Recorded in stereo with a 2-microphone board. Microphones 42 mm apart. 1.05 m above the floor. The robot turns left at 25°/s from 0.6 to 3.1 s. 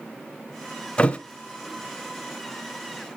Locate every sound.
1.0 s a thud: 25° left (ahead or behind), 1.0 m